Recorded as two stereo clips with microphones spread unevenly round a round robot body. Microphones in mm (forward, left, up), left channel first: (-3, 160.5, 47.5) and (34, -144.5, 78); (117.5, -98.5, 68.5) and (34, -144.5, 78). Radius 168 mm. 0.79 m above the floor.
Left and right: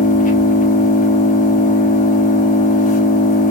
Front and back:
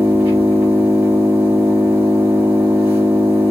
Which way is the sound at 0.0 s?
165° left.